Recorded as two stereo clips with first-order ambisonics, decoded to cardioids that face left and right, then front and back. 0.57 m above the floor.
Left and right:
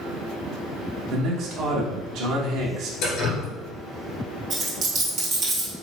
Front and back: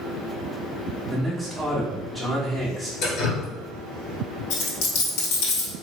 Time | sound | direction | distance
1.1 | a man speaking | 85° right | 1.0 m
3.0 | dripping | 50° left | 1.8 m
4.5 | a dropped coin | 25° right | 1.8 m